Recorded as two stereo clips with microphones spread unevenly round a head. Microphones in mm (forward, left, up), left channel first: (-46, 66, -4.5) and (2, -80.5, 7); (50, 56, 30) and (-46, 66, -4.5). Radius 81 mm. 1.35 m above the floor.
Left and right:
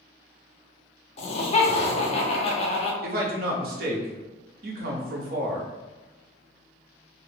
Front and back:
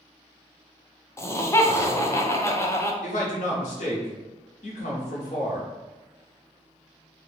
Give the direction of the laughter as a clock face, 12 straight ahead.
10 o'clock.